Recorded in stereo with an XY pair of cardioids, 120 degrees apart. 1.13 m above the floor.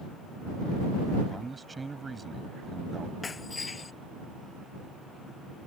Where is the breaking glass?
25° left.